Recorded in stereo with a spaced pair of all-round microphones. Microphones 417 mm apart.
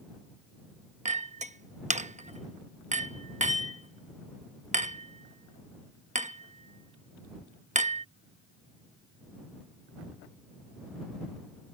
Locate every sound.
1.1 s a clink: 15° right (ahead or behind)